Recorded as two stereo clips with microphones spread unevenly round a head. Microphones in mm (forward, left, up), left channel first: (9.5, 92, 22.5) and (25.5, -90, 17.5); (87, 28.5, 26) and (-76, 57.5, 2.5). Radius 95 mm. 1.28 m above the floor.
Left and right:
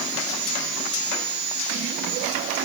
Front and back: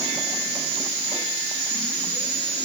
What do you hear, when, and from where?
Only background noise.